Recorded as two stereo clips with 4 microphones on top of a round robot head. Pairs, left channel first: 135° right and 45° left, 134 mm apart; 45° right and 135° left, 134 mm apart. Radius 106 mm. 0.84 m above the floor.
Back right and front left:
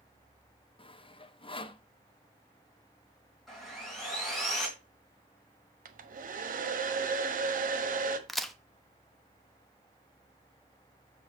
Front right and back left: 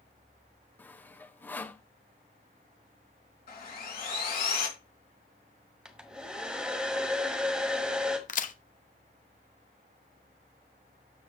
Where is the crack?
45° right, 1.1 m.